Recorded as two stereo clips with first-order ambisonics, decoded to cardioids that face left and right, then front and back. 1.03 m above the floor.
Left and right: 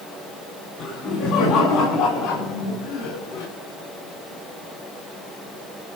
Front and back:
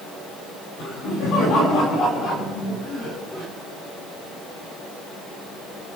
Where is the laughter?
40° left, 7.5 m; by 3.5 s 70° left, 6 m.